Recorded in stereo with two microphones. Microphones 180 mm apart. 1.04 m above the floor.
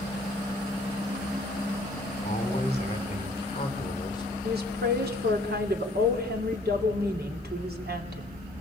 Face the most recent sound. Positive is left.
turn(degrees=-65)  # may be behind; listen again after turning